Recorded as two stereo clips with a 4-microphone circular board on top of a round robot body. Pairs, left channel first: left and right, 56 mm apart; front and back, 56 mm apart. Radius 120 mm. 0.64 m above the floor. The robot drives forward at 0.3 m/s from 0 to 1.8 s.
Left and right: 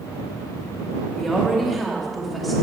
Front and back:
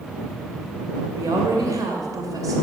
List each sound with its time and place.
1.1 s a woman speaking: straight behind, 2.5 m